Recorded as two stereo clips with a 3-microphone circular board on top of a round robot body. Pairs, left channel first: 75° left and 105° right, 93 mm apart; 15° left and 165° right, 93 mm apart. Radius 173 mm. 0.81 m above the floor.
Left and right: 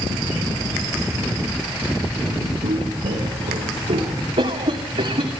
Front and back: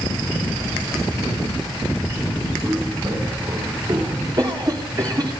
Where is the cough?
110° right, 2.5 m.